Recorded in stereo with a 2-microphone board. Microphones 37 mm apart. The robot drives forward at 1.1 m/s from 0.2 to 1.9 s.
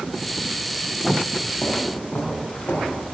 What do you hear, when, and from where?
1.6 s footsteps: 55° left (ahead or behind), 4.5 m; by 3.0 s 70° left (ahead or behind), 5 m